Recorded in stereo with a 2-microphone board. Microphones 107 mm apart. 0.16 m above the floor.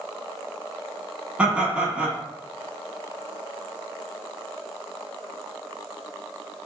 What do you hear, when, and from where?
1.4 s laughter: 10° right (ahead or behind), 1.1 m